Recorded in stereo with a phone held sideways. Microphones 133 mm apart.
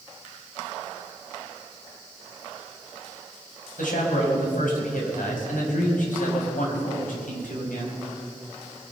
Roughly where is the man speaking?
Left.